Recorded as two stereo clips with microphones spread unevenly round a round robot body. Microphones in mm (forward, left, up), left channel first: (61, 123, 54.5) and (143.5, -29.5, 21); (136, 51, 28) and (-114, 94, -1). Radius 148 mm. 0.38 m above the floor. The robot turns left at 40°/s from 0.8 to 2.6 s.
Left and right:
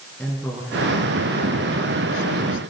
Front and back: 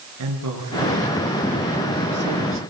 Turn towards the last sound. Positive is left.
turn(degrees=130)